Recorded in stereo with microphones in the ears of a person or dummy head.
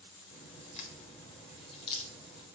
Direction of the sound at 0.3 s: 30° left (ahead or behind).